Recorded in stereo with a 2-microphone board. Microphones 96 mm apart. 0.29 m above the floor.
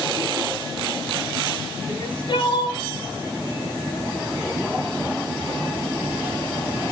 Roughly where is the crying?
Left.